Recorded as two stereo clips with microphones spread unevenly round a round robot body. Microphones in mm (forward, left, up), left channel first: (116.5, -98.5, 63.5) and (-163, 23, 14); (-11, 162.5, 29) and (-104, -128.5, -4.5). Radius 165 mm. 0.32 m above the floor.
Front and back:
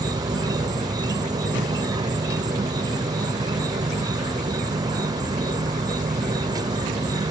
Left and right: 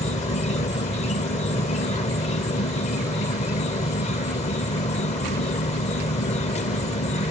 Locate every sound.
0.0 s an insect: 125° left